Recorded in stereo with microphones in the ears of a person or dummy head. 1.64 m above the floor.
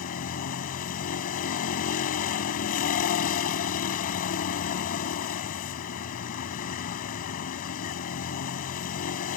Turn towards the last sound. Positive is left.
turn(degrees=50)  # may be behind; listen again after turning